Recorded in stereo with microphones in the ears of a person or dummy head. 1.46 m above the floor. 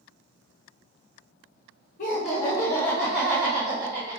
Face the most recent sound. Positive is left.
turn(degrees=-25)  # may be behind; listen again after turning